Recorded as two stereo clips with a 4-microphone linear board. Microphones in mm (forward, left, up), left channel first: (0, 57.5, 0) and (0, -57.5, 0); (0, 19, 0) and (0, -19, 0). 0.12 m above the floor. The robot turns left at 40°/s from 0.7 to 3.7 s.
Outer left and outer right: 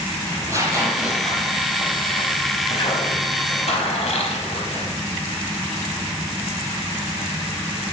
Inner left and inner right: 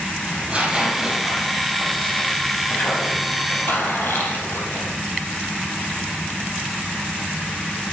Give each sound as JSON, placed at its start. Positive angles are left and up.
{"t": 0.3, "sound": "tearing paper", "side_deg": -25, "distance_m": 4.0}